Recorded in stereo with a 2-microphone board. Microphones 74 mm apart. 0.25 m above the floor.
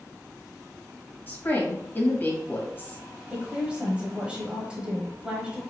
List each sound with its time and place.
1.3 s a woman speaking: 30° left (ahead or behind), 1.3 m
3.3 s a woman speaking: 15° right (ahead or behind), 1.1 m